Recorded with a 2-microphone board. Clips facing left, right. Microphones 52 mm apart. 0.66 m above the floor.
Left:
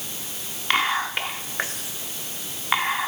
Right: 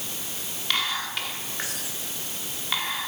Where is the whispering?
35° left (ahead or behind), 1.1 m.